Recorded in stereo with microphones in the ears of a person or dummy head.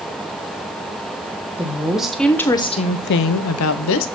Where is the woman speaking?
10° right (ahead or behind), 1.1 m; by 4.1 s 70° left (ahead or behind), 0.8 m.